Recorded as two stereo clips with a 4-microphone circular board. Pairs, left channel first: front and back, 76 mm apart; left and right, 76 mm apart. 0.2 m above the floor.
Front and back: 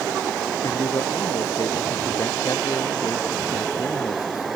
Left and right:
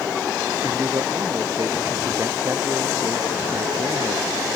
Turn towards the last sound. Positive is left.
turn(degrees=-45)